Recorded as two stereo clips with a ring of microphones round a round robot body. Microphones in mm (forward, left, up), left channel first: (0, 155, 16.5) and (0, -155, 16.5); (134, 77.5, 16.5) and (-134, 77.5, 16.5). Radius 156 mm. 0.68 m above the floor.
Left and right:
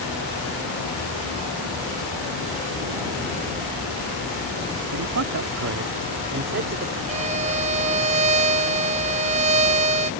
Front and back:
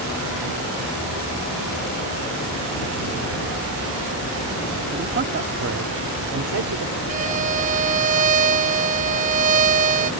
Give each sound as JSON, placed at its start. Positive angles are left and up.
{"t": 4.9, "sound": "a man speaking", "azimuth_deg": -120}
{"t": 7.1, "sound": "a violin", "azimuth_deg": -140}